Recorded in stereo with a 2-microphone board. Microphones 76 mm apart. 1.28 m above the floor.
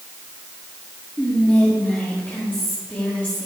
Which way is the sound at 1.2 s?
25° left (ahead or behind).